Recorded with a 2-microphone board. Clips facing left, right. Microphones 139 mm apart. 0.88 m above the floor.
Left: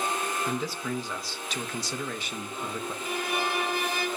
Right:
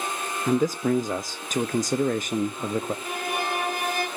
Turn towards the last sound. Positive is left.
turn(degrees=-50)  # may be behind; listen again after turning